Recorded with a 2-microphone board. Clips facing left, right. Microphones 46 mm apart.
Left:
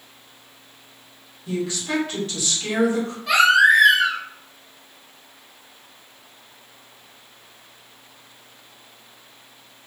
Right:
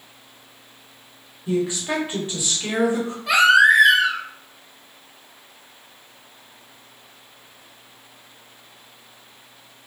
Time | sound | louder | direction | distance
1.5 | a woman speaking | right 3 dB | 25° right (ahead or behind) | 1.0 m
3.3 | a baby crying | right 1 dB | centre (ahead or behind) | 0.8 m